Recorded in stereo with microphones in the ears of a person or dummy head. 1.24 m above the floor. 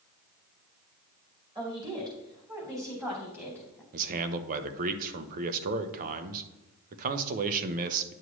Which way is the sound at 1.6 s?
20° right (ahead or behind).